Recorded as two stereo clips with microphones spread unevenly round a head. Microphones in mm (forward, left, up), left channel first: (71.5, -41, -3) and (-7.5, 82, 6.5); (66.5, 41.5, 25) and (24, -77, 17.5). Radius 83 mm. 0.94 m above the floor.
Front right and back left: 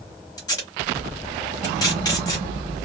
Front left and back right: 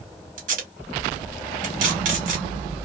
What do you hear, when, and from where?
0.4 s tape being pulled: 125° right, 1.2 m